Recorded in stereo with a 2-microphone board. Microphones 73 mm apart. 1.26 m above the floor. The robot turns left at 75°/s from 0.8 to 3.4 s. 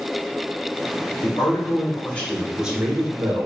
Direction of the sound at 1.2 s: 95° left.